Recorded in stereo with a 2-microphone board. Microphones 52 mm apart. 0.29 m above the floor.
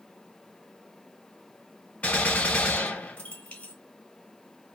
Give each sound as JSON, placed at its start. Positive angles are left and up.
{"t": 2.0, "sound": "a gunshot", "side_deg": 25, "distance_m": 1.6}